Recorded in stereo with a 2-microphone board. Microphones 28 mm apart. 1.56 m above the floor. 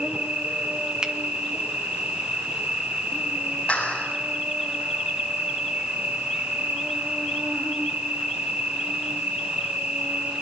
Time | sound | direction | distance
0.0 | an insect | 60° right (ahead or behind) | 3 m
1.0 | a finger snap | 30° right (ahead or behind) | 1.9 m
3.7 | a clap | 40° left (ahead or behind) | 8.5 m